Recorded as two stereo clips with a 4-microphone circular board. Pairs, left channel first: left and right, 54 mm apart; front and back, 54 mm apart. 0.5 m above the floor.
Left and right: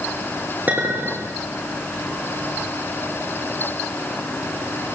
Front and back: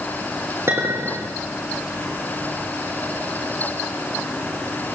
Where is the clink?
145° right, 6.5 m.